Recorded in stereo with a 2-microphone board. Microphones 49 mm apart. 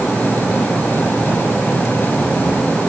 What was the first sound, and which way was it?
Only background noise.